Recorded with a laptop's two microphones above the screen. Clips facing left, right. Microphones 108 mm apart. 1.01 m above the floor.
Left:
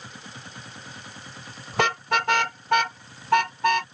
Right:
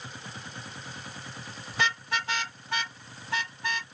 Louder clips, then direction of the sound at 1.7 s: Left 7 dB; 70° left (ahead or behind).